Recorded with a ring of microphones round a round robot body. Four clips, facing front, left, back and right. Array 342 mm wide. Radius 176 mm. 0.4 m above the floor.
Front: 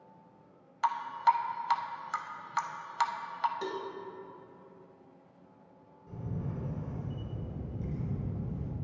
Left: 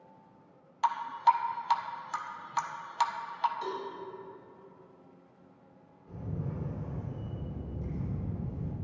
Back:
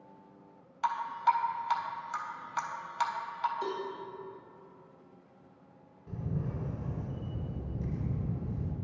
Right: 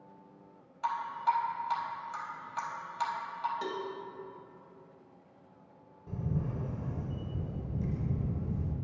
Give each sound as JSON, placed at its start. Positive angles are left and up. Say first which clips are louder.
{"t": 0.8, "sound": "dripping", "louder": "left 5 dB, front 1 dB", "azimuth_deg": 70, "distance_m": 0.6}
{"t": 3.6, "sound": "a cowbell", "louder": "even, back 1 dB", "azimuth_deg": -35, "distance_m": 1.0}
{"t": 6.1, "sound": "a camera shutter", "louder": "right 3 dB, back 2 dB", "azimuth_deg": -105, "distance_m": 1.7}